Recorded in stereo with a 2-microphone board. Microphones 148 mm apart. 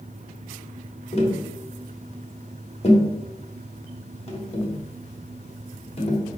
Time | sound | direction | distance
1.1 | tapping | 45° left (ahead or behind) | 0.9 m